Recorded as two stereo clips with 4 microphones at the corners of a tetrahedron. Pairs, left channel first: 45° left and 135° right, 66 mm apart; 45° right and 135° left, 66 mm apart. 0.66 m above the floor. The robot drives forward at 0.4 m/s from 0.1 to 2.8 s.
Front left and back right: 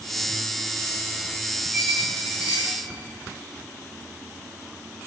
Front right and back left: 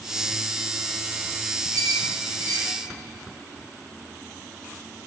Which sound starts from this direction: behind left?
A squeak, at 1.7 s.